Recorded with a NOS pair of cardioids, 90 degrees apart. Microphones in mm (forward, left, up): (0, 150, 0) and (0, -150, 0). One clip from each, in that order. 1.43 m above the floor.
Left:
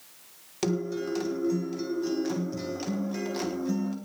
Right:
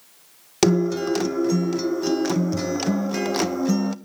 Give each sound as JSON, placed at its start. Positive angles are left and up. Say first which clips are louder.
{"t": 0.6, "sound": "a guitar", "louder": "right 10 dB", "azimuth_deg": -70, "distance_m": 1.2}